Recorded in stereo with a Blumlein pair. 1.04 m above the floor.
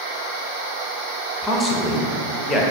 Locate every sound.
1.4 s a man speaking: 10° left, 0.6 m